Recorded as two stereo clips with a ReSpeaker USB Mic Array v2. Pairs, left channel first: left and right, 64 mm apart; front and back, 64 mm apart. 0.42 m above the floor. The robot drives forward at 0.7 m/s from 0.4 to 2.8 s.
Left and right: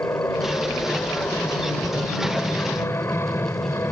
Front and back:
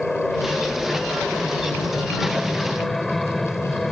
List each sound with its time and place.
0.0 s an aircraft: 80° left; by 3.9 s 85° left